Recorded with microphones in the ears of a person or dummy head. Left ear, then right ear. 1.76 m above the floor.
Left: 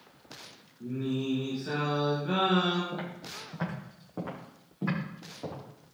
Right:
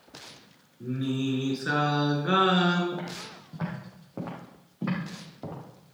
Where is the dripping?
No dripping in this recording.